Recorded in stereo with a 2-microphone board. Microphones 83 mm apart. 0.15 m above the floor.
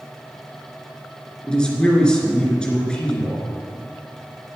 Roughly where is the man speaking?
Centre.